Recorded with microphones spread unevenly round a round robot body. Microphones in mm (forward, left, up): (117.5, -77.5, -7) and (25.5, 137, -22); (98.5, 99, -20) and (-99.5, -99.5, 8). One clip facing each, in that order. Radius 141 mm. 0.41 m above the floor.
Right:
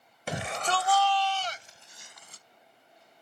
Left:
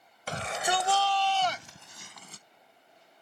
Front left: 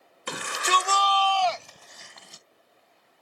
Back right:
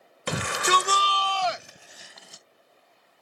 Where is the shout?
140° right; by 2.4 s 135° left.